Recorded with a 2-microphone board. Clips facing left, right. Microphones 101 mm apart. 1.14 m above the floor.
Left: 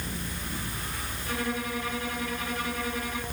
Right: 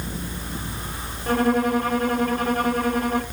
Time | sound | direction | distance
1.3 | a violin | 50° right (ahead or behind) | 1.6 m